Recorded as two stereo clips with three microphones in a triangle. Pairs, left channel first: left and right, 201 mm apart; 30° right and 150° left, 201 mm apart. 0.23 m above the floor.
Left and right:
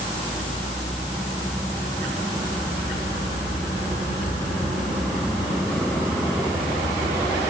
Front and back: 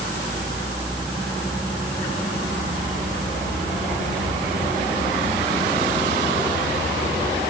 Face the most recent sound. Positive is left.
No sound to turn to.